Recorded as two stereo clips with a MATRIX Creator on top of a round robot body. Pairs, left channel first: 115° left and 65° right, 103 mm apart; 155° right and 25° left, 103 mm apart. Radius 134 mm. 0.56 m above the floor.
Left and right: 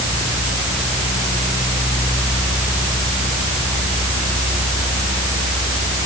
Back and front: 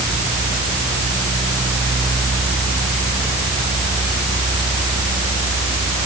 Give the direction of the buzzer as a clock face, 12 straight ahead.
No buzzer in this recording.